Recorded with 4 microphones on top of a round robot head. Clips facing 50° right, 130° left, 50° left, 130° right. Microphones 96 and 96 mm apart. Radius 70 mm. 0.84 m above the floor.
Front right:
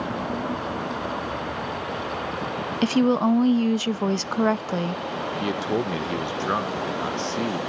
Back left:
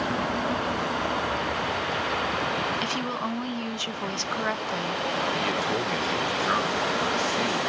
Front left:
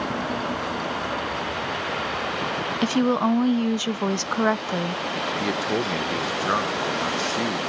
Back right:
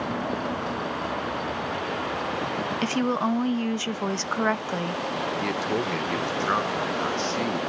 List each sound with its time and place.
2.8 s a woman speaking: 20° right, 0.6 m
5.3 s a man speaking: 25° right, 0.8 m